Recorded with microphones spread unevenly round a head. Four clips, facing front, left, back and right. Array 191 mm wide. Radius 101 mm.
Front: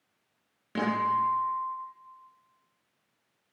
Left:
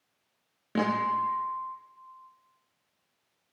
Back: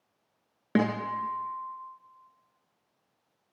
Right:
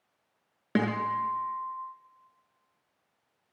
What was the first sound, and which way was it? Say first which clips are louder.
A guitar: left 1 dB, front 1 dB; 150° right.